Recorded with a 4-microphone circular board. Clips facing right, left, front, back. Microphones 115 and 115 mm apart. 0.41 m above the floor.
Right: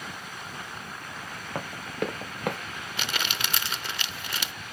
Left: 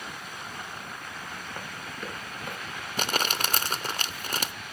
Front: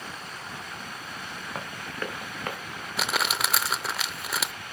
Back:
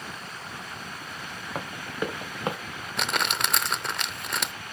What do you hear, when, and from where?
1.6 s running footsteps: 100° right, 2.5 m; by 2.6 s 115° right, 1.9 m
3.0 s crumpling: 85° left, 0.6 m